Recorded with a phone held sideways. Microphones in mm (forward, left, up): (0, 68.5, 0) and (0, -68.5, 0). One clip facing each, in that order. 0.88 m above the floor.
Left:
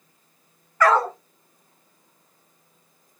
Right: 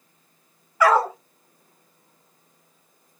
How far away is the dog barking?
About 1.1 m.